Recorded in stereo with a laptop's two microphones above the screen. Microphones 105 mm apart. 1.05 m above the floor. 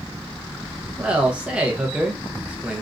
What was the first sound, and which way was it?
A man speaking, 10° right (ahead or behind).